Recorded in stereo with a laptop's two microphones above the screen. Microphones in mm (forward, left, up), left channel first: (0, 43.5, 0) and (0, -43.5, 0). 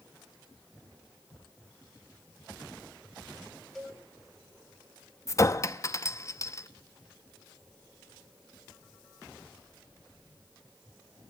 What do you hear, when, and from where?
3.8 s a cowbell: 5° left (ahead or behind), 1.5 m
5.3 s a clink: 35° left (ahead or behind), 0.6 m